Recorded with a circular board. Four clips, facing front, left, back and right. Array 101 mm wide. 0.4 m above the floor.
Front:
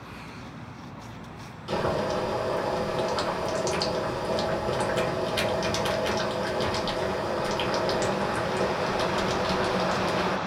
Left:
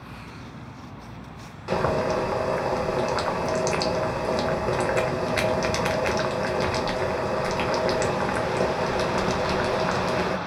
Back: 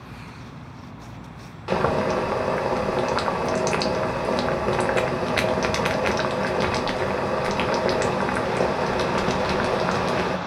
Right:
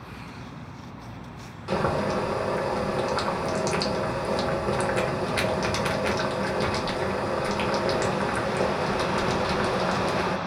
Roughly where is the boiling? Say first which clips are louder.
Left 2 dB, back 5 dB; behind.